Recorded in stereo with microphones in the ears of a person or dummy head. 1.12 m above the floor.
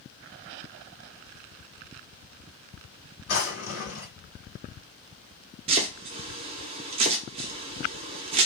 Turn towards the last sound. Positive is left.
turn(degrees=-30)  # may be behind; listen again after turning